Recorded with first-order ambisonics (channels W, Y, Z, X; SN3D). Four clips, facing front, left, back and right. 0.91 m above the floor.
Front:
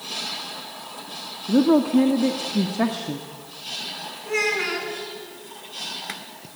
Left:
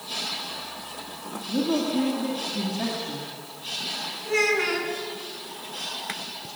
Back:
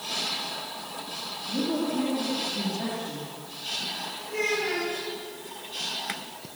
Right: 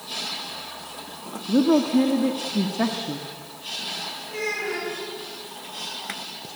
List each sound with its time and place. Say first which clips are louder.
1.5 s a woman speaking: right 6 dB, front 11 dB; 30° right, 1.7 m
4.2 s a child speaking: left 7 dB, front 5 dB; 40° left, 7.5 m